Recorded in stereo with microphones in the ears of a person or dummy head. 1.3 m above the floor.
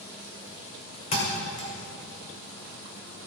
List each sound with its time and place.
1.1 s a thud: 45° left (ahead or behind), 2 m